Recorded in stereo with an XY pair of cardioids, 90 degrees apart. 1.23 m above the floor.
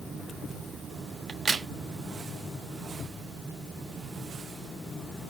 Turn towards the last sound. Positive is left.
turn(degrees=-45)